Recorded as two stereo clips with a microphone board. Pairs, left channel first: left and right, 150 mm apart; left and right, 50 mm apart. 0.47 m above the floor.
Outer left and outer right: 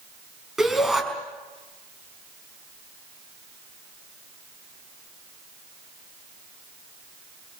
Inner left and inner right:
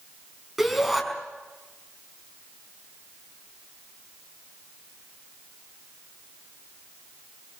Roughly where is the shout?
Centre.